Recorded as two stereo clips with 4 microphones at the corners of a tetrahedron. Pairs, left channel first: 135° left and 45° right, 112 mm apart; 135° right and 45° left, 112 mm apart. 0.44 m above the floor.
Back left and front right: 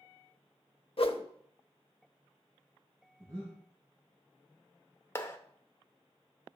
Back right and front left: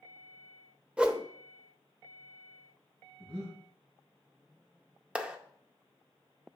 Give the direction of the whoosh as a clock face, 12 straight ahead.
8 o'clock.